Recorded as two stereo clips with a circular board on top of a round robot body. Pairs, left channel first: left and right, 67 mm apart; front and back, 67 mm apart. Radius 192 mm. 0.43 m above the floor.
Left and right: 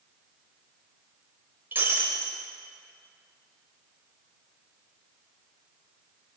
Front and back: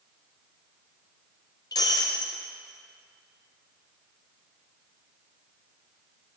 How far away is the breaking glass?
About 0.7 m.